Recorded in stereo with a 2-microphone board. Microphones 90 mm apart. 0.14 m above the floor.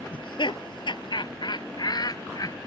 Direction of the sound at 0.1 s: 70° left (ahead or behind).